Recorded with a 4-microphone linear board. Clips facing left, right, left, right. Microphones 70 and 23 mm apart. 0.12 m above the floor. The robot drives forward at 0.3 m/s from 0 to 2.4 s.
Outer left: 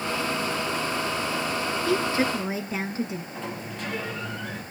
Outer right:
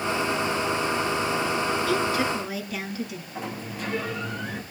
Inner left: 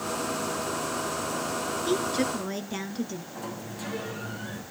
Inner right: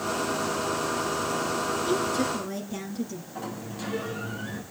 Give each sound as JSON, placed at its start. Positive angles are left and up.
{"t": 1.9, "sound": "a woman speaking", "side_deg": 30, "distance_m": 1.7}
{"t": 3.4, "sound": "a sliding door", "side_deg": -5, "distance_m": 5.5}